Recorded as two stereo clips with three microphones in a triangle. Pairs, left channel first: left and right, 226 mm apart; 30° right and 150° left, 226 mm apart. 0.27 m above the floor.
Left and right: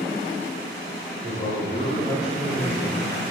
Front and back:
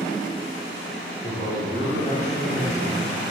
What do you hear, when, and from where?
1.2 s a man speaking: 30° left, 1.6 m; by 3.0 s 10° right, 2.0 m